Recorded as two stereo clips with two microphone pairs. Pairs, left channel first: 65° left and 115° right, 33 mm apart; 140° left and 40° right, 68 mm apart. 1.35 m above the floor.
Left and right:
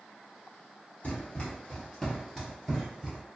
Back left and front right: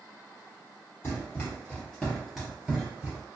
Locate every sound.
1.0 s running footsteps: 95° left, 1.7 m; by 3.2 s 70° right, 1.4 m